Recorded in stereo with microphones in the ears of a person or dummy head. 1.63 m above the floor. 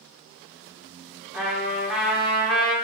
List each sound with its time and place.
1.3 s a trumpet: 5° right (ahead or behind), 1.2 m